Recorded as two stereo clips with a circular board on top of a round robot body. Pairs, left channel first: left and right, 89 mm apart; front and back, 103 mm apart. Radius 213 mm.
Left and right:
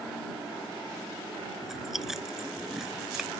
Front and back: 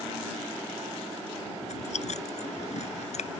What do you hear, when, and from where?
1.6 s chewing: 5° right